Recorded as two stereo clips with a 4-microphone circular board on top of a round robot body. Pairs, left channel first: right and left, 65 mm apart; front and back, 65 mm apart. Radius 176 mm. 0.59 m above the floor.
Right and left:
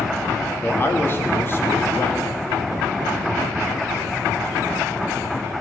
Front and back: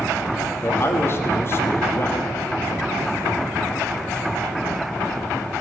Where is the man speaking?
45° right, 2.0 m.